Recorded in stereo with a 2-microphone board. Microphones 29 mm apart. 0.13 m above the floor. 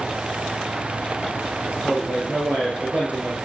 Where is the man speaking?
50° right (ahead or behind), 8 m.